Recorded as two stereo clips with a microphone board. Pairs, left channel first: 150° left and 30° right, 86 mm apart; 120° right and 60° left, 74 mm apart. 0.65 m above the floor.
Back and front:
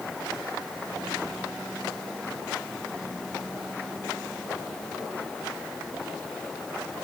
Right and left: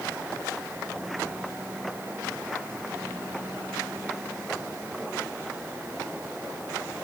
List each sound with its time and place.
Only background noise.